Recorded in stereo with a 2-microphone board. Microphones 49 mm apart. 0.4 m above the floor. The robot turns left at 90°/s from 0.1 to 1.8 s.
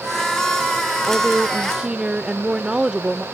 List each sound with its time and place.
1.1 s a woman speaking: 10° right (ahead or behind); by 3.2 s 20° right (ahead or behind)